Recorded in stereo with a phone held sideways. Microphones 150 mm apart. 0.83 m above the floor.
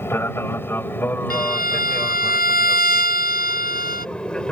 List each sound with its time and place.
0.0 s an aircraft: 15° left (ahead or behind); by 4.5 s 5° left (ahead or behind)
1.3 s a violin: 90° left